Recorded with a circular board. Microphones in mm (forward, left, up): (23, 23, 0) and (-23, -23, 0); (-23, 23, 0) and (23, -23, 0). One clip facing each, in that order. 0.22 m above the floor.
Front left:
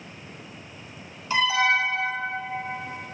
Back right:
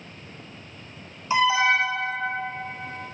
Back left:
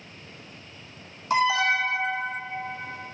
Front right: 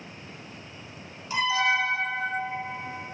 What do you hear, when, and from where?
1.3 s an alarm: 155° left, 1.3 m